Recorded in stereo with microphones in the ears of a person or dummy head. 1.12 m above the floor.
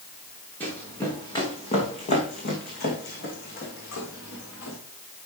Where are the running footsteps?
10° left (ahead or behind), 2.5 m; by 4.8 s 75° left (ahead or behind), 4 m.